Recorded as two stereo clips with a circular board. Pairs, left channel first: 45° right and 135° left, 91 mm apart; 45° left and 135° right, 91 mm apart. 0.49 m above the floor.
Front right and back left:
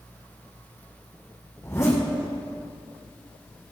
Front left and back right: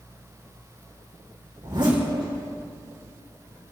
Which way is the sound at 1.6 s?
100° right.